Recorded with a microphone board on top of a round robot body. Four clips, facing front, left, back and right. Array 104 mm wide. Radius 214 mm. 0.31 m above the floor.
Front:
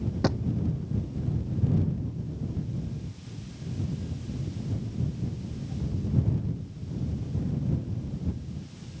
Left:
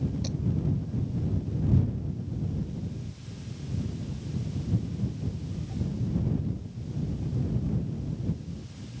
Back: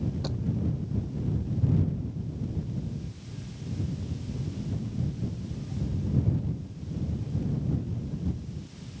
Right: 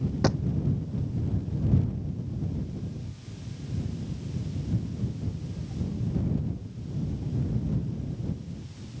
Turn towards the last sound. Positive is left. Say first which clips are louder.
# right 9 dB, front 8 dB
turn(degrees=-55)